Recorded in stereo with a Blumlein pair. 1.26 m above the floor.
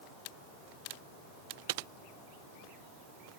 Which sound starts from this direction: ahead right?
Typing on a keyboard, at 1.7 s.